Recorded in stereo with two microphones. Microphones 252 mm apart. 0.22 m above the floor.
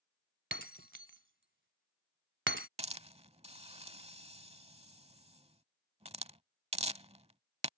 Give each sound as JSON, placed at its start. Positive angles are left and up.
{"t": 0.5, "sound": "breaking glass", "side_deg": -50}
{"t": 2.8, "sound": "a hiss", "side_deg": -25}